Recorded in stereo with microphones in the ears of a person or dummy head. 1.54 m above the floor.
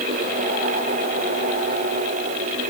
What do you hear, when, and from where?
Only background noise.